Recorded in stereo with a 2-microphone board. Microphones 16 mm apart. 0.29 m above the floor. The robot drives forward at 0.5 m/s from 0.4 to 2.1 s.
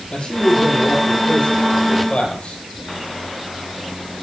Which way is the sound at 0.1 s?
80° left.